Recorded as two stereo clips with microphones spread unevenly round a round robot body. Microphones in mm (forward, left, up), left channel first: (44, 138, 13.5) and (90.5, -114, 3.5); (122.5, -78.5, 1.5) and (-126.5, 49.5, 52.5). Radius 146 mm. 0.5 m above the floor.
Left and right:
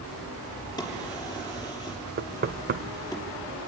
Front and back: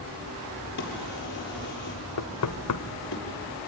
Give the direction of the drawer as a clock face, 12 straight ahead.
11 o'clock.